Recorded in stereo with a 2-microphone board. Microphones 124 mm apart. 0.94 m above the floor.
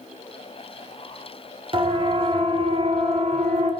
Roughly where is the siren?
Right.